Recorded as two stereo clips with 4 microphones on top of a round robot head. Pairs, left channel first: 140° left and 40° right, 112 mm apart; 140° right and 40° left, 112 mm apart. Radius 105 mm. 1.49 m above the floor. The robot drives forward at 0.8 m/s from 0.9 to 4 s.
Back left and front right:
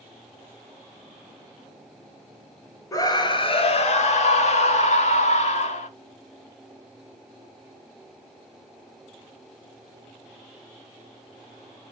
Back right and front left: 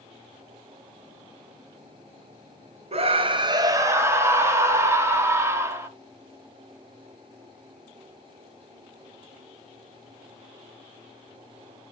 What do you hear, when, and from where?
2.9 s a scream: 75° left, 1.5 m; by 5.9 s 110° left, 1.6 m